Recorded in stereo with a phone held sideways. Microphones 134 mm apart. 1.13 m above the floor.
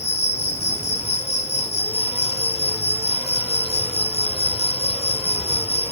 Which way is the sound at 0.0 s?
55° left (ahead or behind).